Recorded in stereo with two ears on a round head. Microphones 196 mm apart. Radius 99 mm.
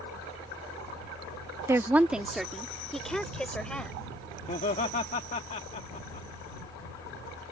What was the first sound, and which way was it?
A woman speaking, 15° right (ahead or behind).